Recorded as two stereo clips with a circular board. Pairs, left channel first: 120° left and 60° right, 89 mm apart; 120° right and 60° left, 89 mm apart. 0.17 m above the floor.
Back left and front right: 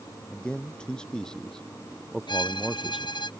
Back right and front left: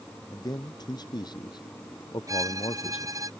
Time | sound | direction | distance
0.3 | a man speaking | 160° right | ?
2.3 | a violin | 105° left | ?